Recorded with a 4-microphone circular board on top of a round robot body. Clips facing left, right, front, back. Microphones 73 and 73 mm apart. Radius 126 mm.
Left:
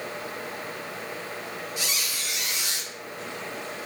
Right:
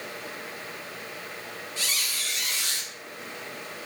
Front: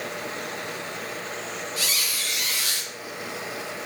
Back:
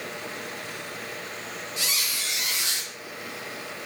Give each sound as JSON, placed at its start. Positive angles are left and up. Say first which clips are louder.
{"t": 1.8, "sound": "a squeak", "louder": "left 1 dB, front 2 dB", "azimuth_deg": 145, "distance_m": 0.7}